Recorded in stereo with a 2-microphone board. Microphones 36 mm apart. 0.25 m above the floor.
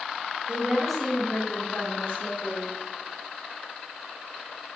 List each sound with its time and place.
0.5 s a woman speaking: 30° right (ahead or behind), 1.0 m; by 2.7 s 65° left (ahead or behind), 2.5 m